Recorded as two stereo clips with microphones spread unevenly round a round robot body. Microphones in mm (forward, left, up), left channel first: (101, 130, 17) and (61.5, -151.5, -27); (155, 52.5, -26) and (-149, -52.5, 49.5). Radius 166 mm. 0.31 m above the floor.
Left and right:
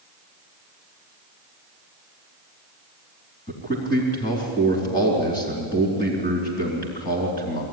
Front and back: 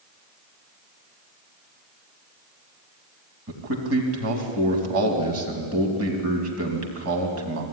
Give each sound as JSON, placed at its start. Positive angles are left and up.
{"t": 3.5, "sound": "a man speaking", "azimuth_deg": 150, "distance_m": 3.5}